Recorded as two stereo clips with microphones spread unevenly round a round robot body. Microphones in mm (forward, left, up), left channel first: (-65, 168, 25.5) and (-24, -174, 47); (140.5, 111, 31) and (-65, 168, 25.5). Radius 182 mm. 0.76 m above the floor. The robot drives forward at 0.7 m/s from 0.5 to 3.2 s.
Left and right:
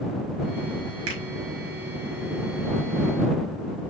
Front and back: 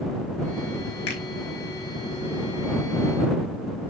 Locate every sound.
1.1 s a finger snap: 30° right, 5.5 m